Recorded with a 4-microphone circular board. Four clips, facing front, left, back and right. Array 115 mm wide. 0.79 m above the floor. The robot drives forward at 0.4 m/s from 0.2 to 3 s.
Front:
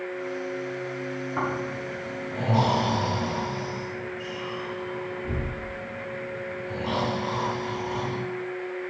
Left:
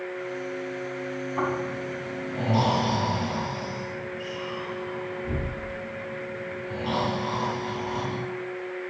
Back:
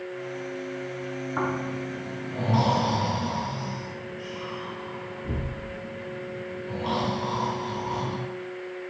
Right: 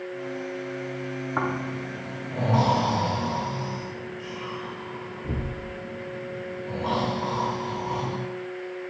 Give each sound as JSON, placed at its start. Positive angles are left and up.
{"t": 1.4, "sound": "snoring", "azimuth_deg": -95, "distance_m": 3.0}